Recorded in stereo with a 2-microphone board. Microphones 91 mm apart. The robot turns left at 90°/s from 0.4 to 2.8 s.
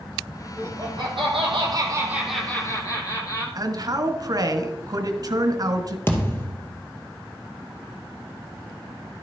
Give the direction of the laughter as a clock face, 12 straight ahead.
1 o'clock.